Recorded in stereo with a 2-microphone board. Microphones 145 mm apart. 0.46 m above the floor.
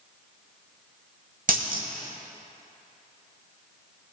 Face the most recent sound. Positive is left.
turn(degrees=-70)  # may be behind; listen again after turning